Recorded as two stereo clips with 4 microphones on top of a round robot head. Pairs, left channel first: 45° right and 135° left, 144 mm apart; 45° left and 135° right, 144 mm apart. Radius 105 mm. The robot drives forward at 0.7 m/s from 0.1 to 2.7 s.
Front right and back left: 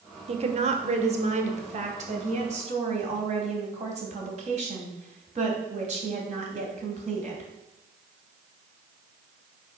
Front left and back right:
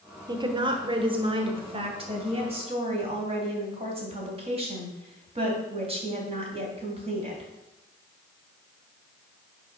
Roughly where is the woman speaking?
Behind.